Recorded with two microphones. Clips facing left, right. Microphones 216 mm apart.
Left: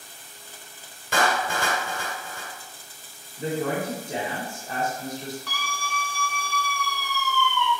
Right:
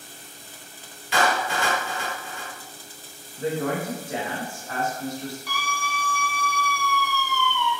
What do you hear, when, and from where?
1.1 s a clap: 50° left (ahead or behind), 1.6 m
3.4 s a woman speaking: 20° left (ahead or behind), 1.1 m
5.5 s a scream: 10° right (ahead or behind), 1.0 m